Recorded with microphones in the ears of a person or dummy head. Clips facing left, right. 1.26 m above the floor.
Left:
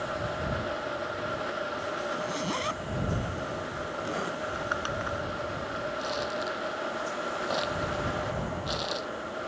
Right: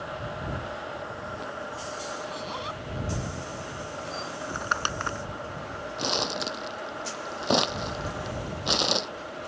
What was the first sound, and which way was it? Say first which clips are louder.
A zipper: left 4 dB; 40° left (ahead or behind).